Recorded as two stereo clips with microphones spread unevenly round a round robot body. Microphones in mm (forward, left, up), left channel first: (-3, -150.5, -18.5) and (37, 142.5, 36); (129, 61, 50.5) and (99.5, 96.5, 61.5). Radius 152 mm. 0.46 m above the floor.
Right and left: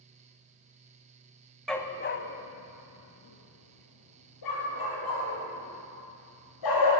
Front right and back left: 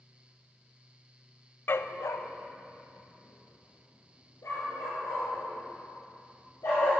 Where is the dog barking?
5° right, 0.5 m; by 6.9 s 90° right, 4.5 m.